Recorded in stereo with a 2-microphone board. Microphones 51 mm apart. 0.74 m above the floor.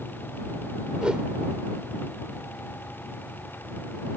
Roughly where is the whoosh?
Centre.